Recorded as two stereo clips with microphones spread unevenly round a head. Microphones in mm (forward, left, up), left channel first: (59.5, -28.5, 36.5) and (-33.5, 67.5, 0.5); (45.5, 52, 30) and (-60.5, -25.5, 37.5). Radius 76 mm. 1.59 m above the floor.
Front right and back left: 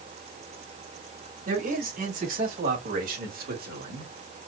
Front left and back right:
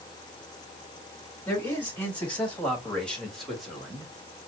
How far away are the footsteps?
I don't hear footsteps.